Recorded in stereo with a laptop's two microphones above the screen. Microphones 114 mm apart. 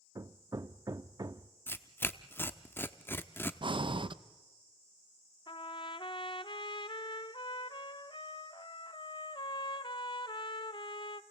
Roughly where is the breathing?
Right.